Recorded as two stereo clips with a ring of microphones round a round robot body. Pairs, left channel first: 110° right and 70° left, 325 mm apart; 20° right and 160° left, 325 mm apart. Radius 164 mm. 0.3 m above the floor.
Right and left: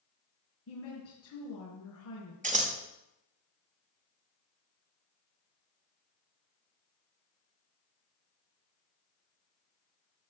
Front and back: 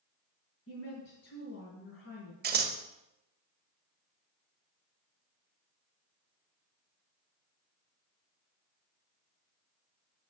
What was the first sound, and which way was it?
A woman speaking, 75° right.